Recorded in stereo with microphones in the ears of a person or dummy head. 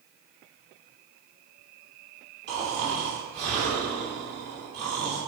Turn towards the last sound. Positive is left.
turn(degrees=-65)  # may be behind; listen again after turning